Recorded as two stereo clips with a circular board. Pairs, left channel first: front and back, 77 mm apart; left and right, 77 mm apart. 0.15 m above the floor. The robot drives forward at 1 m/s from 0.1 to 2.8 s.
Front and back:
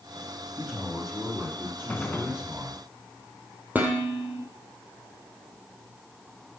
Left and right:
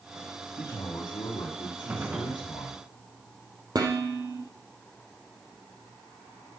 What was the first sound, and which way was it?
A man speaking, 85° left.